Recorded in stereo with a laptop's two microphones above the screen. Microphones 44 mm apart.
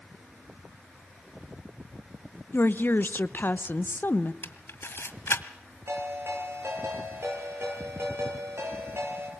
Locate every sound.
2.5 s a woman speaking: 55° left (ahead or behind), 0.8 m
4.4 s a camera shutter: 65° left (ahead or behind), 1.6 m
5.9 s a ringtone: 80° right, 10 m